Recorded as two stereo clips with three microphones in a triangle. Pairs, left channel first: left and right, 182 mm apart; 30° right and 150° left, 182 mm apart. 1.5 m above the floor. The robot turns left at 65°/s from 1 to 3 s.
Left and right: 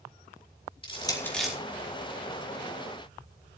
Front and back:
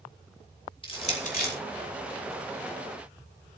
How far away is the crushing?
About 4 m.